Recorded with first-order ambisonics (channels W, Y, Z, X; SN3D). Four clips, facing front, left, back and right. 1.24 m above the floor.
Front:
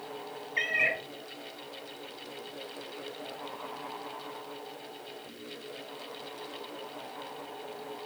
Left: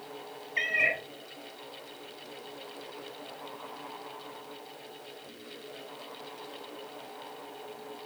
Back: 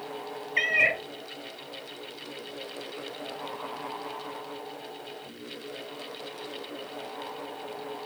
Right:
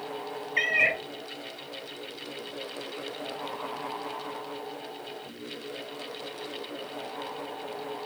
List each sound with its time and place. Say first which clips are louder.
0.6 s a cat meowing: right 3 dB, back 4 dB; 150° right, 0.5 m